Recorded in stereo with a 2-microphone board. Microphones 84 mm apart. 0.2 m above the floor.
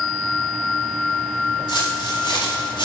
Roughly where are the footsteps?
Left.